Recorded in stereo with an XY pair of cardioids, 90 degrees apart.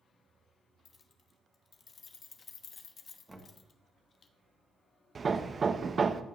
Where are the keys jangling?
50° left, 1.0 m.